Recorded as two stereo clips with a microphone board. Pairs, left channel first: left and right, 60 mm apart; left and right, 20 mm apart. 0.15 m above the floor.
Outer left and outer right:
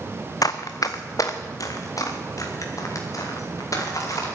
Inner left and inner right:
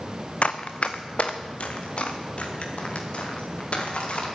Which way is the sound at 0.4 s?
65° left (ahead or behind).